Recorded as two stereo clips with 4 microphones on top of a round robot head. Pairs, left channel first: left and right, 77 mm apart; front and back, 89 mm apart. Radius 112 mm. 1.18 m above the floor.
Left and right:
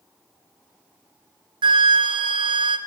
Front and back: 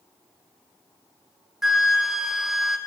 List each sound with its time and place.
1.6 s a flute: 90° right, 0.8 m